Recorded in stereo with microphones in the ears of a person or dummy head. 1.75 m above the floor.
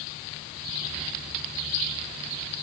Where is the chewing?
I don't hear chewing.